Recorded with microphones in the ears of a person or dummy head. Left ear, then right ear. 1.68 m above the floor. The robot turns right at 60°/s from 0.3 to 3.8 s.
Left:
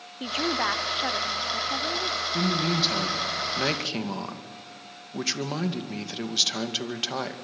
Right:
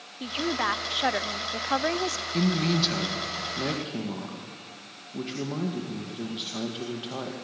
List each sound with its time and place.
0.2 s a woman speaking: 155° left, 0.7 m; by 2.2 s 85° right, 0.7 m
2.3 s a man speaking: 25° right, 2 m; by 7.3 s 60° left, 2 m